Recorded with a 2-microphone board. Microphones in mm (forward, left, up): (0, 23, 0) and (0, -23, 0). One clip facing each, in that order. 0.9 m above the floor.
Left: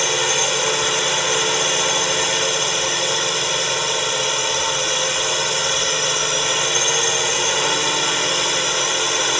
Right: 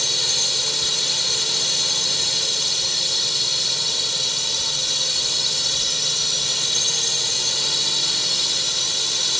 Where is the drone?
50° left (ahead or behind).